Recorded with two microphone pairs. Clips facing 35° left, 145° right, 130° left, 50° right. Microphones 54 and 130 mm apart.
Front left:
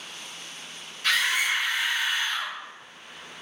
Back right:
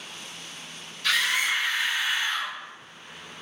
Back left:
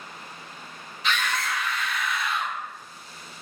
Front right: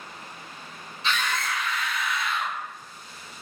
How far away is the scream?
About 1.4 m.